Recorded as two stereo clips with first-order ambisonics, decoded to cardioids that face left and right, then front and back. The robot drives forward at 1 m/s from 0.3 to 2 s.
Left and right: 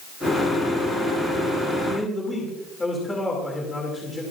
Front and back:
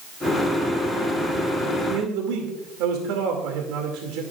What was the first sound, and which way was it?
A man speaking, 165° left.